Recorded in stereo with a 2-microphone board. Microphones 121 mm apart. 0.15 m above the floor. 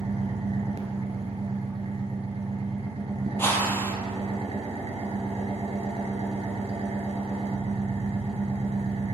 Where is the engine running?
60° right (ahead or behind), 0.9 m.